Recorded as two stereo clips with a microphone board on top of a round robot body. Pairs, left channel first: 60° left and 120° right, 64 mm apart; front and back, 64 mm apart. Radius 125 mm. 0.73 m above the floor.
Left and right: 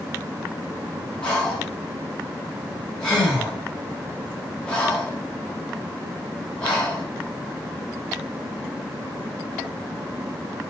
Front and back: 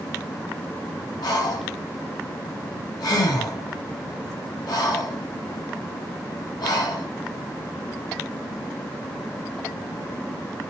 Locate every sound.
1.2 s breathing: 15° right, 4 m